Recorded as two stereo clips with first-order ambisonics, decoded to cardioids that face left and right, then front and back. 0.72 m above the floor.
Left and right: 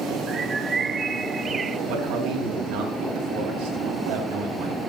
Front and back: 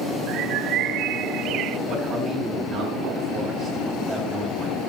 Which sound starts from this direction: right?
A man speaking, at 1.9 s.